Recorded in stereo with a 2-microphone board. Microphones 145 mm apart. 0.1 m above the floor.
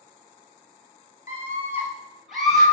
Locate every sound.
1.3 s a scream: 20° right (ahead or behind), 2 m; by 2.6 s 5° left (ahead or behind), 3 m